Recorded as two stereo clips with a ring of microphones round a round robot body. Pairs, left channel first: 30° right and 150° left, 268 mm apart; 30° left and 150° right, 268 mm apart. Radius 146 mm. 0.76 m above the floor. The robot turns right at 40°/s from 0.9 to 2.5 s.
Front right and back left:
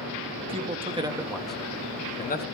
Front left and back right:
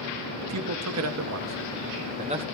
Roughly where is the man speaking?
Behind right.